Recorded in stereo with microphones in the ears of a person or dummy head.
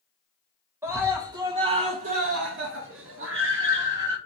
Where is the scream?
10° right (ahead or behind), 1.3 m; by 4.2 s 50° right (ahead or behind), 1.2 m.